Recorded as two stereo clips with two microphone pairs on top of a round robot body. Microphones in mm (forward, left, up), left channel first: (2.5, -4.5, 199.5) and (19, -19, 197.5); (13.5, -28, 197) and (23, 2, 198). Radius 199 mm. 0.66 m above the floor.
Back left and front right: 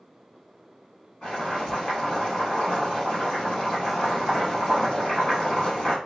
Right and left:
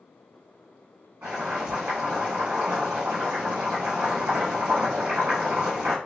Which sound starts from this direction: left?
Boiling, at 1.2 s.